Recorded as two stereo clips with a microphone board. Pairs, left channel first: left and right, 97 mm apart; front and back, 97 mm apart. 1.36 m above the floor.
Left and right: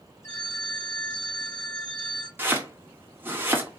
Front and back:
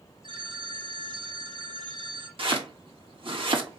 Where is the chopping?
160° right, 1.3 m.